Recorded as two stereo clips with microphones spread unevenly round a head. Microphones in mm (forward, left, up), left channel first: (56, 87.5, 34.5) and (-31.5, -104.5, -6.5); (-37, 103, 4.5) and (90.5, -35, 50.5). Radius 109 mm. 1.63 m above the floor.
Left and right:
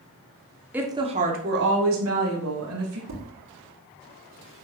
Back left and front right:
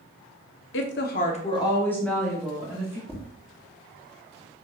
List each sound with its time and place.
0.7 s a woman speaking: 160° left, 1.3 m; by 3.0 s 125° right, 3 m
3.1 s tapping: 130° right, 3 m